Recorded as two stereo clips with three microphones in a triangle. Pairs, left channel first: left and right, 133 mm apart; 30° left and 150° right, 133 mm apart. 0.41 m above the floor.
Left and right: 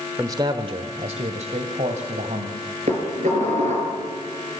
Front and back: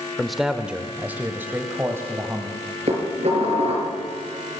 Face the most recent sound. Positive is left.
turn(degrees=-115)